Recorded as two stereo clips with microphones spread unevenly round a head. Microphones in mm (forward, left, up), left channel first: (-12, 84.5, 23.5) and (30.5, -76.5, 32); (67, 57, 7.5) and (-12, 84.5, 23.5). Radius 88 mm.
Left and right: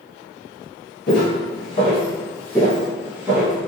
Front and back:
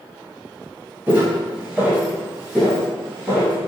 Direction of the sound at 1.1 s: 125° left.